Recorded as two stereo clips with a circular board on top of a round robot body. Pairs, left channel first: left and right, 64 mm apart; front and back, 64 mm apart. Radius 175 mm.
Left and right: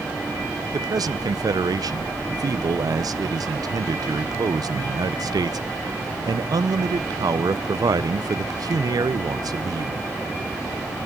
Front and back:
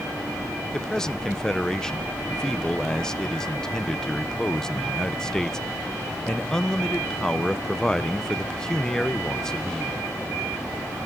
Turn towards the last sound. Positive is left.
turn(degrees=-80)